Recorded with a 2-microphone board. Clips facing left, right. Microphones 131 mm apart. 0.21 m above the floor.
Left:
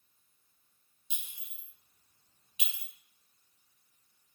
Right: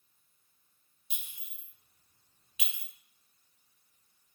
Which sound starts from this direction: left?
A clink, at 1.1 s.